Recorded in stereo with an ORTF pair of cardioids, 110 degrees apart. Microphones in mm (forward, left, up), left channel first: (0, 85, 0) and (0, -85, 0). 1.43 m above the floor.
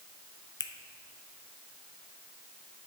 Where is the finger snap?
25° left, 0.6 m.